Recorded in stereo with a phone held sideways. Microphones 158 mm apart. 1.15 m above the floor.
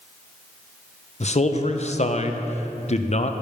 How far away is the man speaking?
About 0.7 m.